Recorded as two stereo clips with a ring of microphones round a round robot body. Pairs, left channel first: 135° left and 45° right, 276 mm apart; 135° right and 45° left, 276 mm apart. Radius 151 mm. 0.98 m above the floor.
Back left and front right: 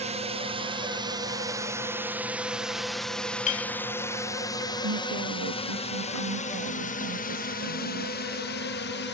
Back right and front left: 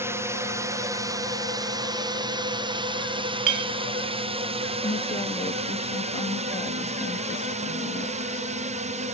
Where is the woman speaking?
65° right.